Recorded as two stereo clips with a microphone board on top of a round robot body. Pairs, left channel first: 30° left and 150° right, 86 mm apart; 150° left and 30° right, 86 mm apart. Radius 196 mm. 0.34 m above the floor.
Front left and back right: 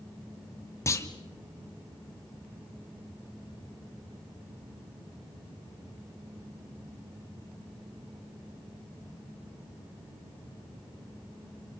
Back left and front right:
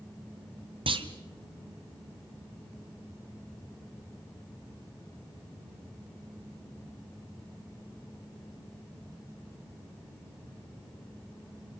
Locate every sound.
0.9 s a clunk: 25° right, 2 m